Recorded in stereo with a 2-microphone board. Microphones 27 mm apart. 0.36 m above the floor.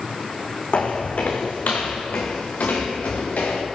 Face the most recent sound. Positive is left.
turn(degrees=80)